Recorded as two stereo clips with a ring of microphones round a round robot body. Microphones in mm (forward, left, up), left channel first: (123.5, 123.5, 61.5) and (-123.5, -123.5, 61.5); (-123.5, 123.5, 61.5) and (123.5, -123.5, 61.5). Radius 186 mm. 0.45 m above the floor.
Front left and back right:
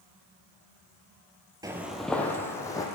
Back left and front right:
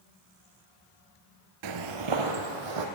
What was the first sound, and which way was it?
Footsteps, 60° right.